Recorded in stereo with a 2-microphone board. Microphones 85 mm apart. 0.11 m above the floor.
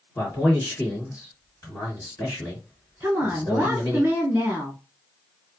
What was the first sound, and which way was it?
A man speaking, 40° left (ahead or behind).